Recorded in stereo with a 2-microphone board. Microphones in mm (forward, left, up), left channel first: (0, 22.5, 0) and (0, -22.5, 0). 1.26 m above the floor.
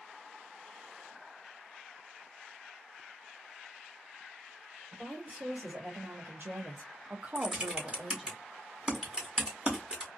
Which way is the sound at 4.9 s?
35° right (ahead or behind).